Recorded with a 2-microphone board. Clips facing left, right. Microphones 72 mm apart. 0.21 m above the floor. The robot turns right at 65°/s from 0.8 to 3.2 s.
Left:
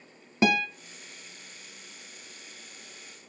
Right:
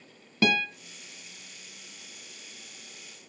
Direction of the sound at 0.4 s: 20° left (ahead or behind).